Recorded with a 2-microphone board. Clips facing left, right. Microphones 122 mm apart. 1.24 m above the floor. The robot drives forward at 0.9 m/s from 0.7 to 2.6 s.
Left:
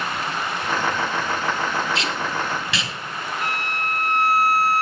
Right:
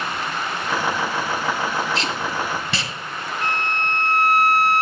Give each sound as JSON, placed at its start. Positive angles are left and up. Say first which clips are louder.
{"t": 1.9, "sound": "tape being pulled", "louder": "right 1 dB", "side_deg": -35, "distance_m": 1.2}
{"t": 3.4, "sound": "a violin", "louder": "right 4 dB", "side_deg": 10, "distance_m": 1.4}